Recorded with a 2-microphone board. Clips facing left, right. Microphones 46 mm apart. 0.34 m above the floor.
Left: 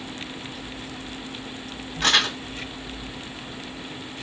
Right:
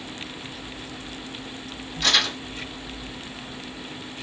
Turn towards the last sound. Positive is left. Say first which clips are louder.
# left 2 dB
turn(degrees=55)  # may be behind; listen again after turning